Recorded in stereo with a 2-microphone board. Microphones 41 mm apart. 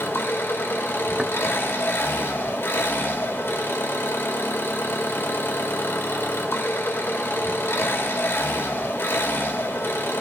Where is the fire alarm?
No fire alarm in this recording.